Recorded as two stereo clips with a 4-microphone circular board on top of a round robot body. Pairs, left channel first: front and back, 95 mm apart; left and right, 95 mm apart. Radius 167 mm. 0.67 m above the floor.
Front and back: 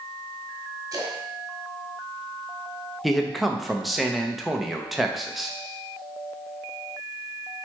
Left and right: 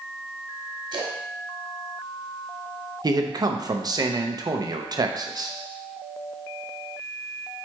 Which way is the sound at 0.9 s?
125° right.